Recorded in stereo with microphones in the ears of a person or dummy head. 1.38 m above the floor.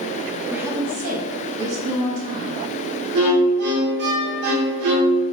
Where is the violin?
65° right (ahead or behind), 0.8 m.